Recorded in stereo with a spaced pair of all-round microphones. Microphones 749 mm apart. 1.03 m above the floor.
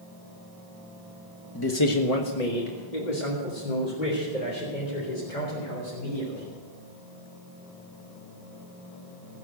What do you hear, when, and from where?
1.6 s a man speaking: 25° left (ahead or behind), 1.2 m; by 6.5 s 80° left, 5.5 m